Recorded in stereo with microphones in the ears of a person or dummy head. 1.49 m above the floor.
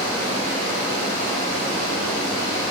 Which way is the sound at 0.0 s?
55° right (ahead or behind).